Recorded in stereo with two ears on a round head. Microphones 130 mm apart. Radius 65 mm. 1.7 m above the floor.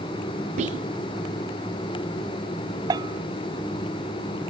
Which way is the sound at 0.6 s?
55° right (ahead or behind).